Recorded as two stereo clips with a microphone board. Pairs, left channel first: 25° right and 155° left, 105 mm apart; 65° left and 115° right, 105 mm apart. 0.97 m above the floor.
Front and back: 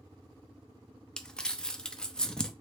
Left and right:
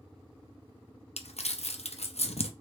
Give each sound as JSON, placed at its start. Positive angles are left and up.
{"t": 1.2, "sound": "crumpling", "azimuth_deg": 60, "distance_m": 0.7}